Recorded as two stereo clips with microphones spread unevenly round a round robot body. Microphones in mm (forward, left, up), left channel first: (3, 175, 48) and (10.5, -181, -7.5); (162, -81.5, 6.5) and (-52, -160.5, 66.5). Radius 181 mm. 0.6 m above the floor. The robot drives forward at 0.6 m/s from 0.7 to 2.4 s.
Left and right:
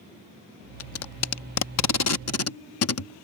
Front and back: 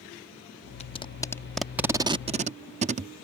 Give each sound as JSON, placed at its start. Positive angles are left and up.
{"t": 0.8, "sound": "tape being pulled", "azimuth_deg": 45}